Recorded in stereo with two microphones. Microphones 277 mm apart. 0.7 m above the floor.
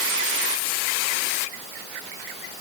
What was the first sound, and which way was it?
Only background noise.